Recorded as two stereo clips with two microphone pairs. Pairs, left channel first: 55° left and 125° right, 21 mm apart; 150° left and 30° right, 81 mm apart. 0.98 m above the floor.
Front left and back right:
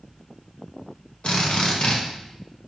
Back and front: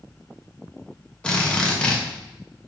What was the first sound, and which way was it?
A drill, 75° left.